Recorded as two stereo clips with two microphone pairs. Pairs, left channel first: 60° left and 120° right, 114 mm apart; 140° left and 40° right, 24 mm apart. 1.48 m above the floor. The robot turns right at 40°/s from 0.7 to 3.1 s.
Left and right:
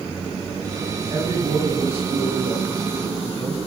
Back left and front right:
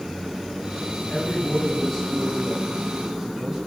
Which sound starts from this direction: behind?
A man speaking, at 1.1 s.